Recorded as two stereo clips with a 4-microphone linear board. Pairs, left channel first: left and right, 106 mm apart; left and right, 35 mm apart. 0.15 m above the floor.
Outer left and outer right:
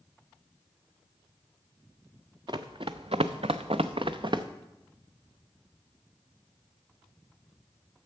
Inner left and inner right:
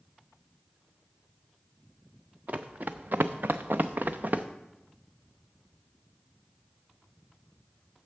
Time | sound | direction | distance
2.5 | running footsteps | 50° right (ahead or behind) | 0.8 m